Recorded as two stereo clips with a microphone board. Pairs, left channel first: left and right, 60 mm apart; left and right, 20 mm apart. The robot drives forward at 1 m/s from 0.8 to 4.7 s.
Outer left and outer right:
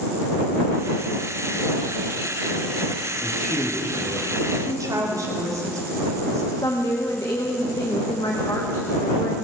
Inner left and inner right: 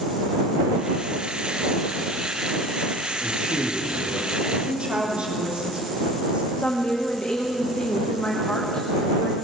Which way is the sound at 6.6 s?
80° left.